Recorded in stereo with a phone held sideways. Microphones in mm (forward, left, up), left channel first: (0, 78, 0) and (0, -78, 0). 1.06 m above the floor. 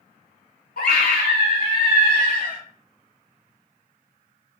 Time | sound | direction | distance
0.8 | a scream | 70° left (ahead or behind) | 1.4 m